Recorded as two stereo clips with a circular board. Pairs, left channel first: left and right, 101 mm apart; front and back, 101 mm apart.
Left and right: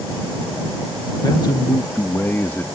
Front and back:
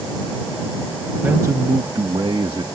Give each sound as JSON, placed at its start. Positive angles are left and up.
{"t": 1.2, "sound": "a man speaking", "azimuth_deg": 115}